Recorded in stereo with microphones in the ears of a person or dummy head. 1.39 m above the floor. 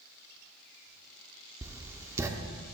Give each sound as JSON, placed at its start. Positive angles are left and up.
{"t": 1.6, "sound": "writing", "side_deg": -15, "distance_m": 0.6}